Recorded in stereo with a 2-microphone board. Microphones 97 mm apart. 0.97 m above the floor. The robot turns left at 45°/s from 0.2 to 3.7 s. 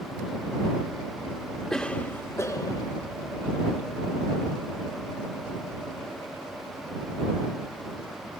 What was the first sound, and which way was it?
A cough, 170° left.